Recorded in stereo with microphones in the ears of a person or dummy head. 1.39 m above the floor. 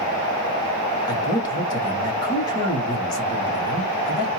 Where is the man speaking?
25° left (ahead or behind), 2 m.